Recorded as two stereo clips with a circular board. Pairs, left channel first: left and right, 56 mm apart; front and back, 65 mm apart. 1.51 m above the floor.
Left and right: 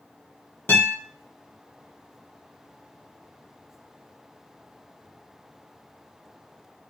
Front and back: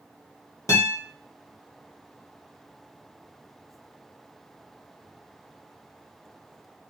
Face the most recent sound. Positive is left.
turn(degrees=40)